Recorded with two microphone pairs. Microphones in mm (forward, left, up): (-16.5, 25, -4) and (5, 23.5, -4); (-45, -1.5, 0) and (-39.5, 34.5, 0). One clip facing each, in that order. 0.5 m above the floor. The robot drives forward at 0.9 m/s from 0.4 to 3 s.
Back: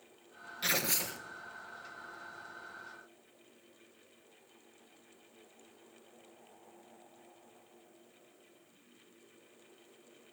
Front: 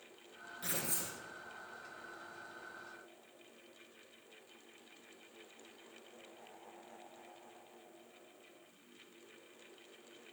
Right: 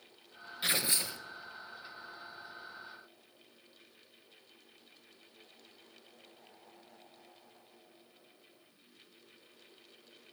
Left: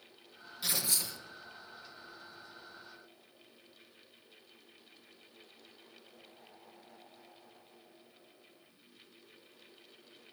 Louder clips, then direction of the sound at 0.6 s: Back 9 dB, right 3 dB; 150° right.